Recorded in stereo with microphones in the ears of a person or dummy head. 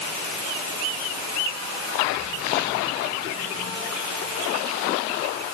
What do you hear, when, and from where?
Only background noise.